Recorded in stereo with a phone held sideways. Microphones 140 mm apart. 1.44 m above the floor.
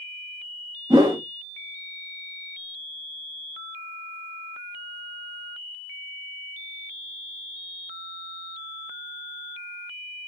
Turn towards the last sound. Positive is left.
turn(degrees=-25)  # may be behind; listen again after turning